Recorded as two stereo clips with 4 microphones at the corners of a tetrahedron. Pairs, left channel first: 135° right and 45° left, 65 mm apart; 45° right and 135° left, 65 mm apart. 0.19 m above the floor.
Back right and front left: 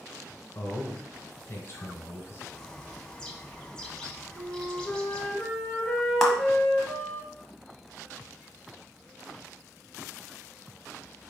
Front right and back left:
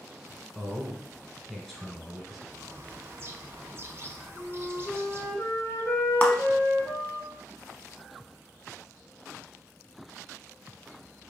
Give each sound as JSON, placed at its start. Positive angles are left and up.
{"t": 0.6, "sound": "a man speaking", "azimuth_deg": -135, "distance_m": 1.2}
{"t": 2.5, "sound": "a bird", "azimuth_deg": 155, "distance_m": 0.6}
{"t": 4.3, "sound": "a flute", "azimuth_deg": -50, "distance_m": 1.2}
{"t": 6.2, "sound": "a clap", "azimuth_deg": -55, "distance_m": 0.8}